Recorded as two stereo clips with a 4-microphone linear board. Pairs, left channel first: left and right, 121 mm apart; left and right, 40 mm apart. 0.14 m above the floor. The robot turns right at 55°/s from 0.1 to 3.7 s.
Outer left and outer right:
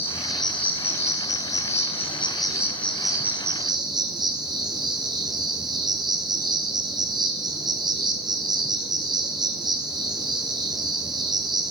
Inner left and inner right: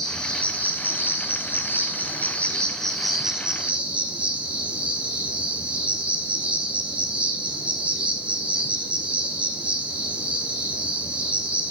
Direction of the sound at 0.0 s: 20° left.